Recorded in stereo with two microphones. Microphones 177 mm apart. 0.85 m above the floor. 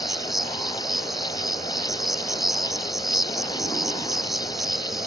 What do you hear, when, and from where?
0.0 s an insect: centre (ahead or behind)